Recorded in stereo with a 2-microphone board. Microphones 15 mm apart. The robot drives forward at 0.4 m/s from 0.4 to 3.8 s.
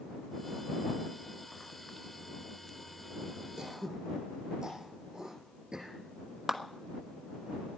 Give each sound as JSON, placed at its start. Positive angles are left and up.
{"t": 3.6, "sound": "throat clearing", "side_deg": -50, "distance_m": 3.5}
{"t": 6.5, "sound": "a clap", "side_deg": -35, "distance_m": 1.4}